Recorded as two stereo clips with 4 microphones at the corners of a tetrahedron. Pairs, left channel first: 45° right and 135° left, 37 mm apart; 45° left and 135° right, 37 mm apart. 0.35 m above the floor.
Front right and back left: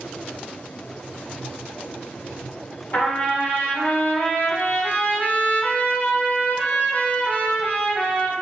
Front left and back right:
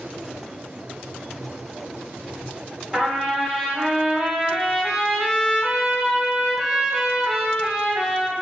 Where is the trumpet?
50° right, 1.2 m.